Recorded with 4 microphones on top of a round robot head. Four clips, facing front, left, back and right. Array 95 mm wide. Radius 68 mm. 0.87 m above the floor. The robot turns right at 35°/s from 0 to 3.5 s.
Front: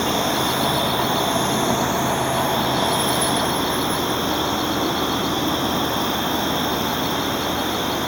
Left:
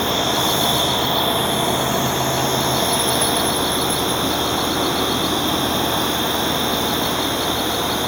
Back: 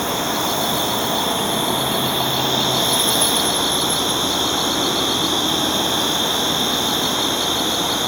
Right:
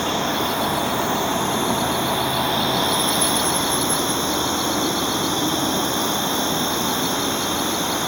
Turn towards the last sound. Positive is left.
turn(degrees=-165)